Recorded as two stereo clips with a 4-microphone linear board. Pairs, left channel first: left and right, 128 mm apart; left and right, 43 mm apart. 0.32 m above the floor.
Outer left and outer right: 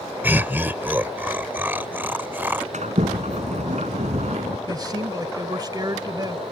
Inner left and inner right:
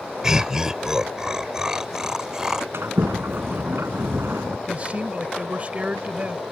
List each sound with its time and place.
0.2 s laughter: 15° right (ahead or behind)
2.7 s a sliding door: 70° right (ahead or behind)
4.7 s a man speaking: 35° right (ahead or behind)